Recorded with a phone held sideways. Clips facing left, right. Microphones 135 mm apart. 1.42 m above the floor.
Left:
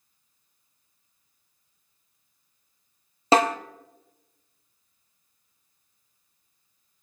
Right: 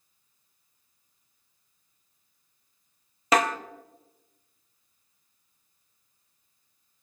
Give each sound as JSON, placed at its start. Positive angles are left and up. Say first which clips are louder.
{"t": 3.3, "sound": "a snare drum", "louder": "left 4 dB", "side_deg": 30, "distance_m": 0.6}